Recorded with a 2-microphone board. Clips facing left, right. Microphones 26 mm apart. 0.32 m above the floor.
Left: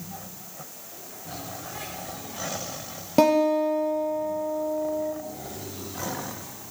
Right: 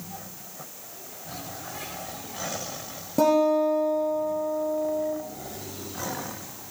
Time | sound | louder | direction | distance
3.2 | a guitar | left 1 dB | 45° left (ahead or behind) | 2 m